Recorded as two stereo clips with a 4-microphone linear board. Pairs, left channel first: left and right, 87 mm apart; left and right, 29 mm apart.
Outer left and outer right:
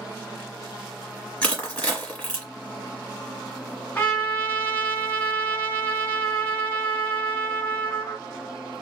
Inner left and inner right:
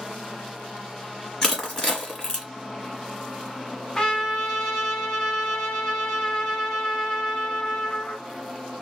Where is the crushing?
15° left (ahead or behind), 1.3 m.